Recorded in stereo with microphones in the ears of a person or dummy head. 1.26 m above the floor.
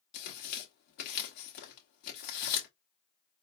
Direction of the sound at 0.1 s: 45° left (ahead or behind).